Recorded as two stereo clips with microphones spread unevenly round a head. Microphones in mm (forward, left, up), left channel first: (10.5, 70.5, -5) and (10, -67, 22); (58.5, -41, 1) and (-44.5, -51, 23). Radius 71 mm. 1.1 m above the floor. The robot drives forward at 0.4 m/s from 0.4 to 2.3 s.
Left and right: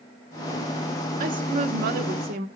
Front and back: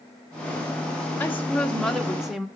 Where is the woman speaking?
55° right, 1.2 m; by 2.5 s 80° right, 1.1 m.